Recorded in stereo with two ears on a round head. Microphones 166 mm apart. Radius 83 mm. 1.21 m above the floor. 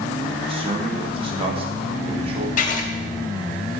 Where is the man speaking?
30° right (ahead or behind), 1.1 m.